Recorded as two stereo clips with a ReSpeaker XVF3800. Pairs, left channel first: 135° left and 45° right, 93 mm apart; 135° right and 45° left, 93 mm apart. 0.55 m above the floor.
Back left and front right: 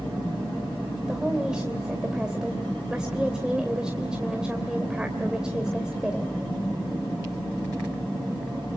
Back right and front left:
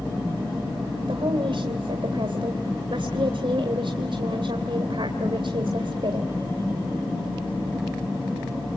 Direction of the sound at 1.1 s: 35° left.